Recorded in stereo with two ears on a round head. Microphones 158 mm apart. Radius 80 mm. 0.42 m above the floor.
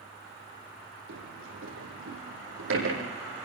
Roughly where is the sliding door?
Right.